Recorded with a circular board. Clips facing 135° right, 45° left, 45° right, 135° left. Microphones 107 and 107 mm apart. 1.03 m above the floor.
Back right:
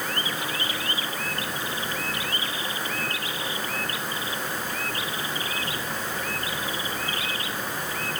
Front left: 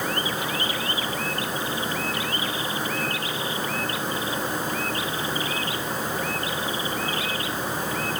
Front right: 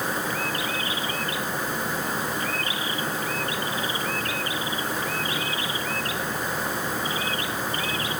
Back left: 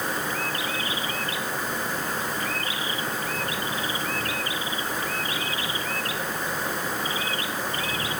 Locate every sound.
Only background noise.